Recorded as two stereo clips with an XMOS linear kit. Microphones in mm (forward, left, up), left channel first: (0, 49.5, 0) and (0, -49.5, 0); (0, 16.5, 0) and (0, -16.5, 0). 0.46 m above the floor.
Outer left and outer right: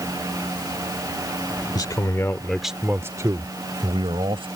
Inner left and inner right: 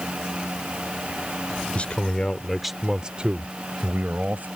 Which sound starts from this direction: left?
A man speaking, at 1.8 s.